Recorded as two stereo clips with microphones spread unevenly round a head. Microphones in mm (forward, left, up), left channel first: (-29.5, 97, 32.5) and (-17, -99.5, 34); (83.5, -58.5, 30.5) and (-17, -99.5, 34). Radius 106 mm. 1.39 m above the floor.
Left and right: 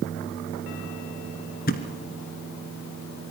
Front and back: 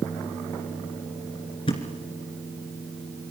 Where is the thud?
65° left, 1.8 m.